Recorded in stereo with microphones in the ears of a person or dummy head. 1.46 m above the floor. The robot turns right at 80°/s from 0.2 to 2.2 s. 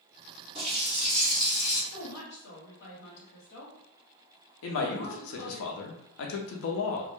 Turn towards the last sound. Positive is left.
turn(degrees=75)  # may be behind; listen again after turning